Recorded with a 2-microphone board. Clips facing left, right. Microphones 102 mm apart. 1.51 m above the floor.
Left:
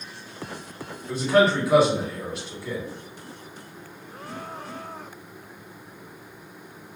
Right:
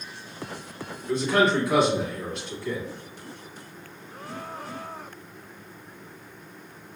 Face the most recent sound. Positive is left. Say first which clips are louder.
# left 2 dB
turn(degrees=5)  # may be behind; listen again after turning